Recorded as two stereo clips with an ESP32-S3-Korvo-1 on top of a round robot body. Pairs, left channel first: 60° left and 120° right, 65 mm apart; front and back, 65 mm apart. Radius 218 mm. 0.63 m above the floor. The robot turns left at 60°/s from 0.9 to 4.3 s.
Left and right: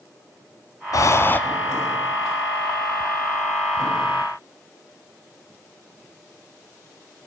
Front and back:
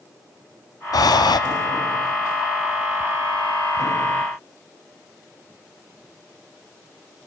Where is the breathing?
25° left, 0.6 m; by 1.4 s 5° right, 0.6 m.